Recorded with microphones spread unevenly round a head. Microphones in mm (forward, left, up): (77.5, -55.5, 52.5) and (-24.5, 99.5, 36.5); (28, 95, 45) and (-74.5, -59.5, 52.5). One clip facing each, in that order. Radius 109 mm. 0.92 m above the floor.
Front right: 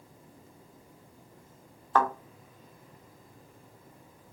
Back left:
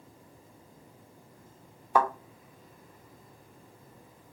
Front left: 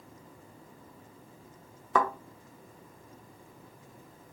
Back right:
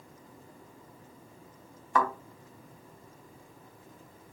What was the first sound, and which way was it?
A thud, 40° left.